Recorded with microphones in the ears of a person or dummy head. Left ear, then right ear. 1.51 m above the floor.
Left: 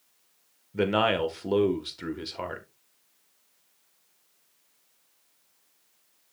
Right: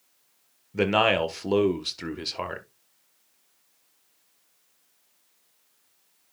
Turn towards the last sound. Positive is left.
turn(degrees=-20)  # may be behind; listen again after turning